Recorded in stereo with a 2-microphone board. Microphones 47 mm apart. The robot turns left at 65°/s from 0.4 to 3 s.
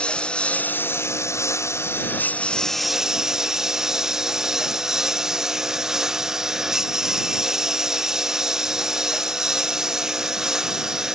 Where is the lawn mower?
155° left; by 11.2 s 10° right.